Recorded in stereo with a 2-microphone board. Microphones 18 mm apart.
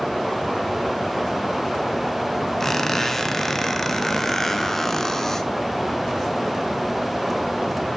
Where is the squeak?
15° left (ahead or behind), 1.4 m.